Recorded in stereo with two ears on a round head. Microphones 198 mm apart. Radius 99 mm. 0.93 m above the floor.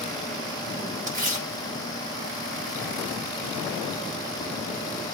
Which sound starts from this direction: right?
Tearing paper, at 1.1 s.